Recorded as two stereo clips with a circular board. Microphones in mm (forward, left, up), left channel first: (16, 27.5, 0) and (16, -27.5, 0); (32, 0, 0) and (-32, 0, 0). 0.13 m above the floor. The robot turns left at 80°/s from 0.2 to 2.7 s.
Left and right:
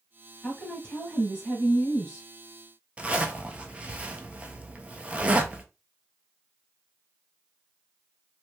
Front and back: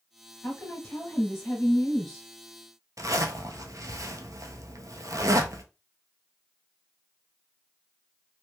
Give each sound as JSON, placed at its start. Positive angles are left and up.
{"t": 0.4, "sound": "a woman speaking", "azimuth_deg": 40, "distance_m": 1.8}
{"t": 3.0, "sound": "a zipper", "azimuth_deg": -155, "distance_m": 0.5}